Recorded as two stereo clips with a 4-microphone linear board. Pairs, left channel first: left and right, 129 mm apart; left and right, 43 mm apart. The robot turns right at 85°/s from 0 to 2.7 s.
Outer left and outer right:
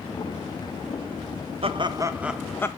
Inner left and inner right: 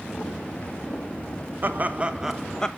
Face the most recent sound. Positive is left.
turn(degrees=25)